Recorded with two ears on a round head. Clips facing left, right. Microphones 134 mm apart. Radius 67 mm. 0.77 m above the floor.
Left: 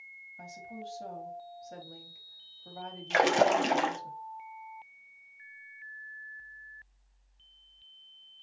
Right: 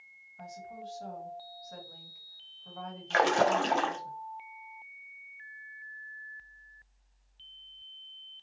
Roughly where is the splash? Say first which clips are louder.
Left 1 dB; centre.